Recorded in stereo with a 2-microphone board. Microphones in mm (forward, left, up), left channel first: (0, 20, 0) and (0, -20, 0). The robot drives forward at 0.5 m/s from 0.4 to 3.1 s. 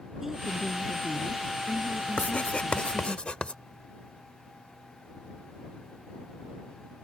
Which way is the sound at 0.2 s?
5° right (ahead or behind).